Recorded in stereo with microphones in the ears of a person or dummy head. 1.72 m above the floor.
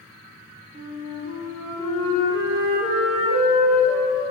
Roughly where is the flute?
Right.